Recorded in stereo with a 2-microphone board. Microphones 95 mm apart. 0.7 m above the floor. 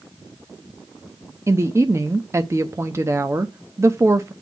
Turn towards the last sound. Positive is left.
turn(degrees=-30)  # may be behind; listen again after turning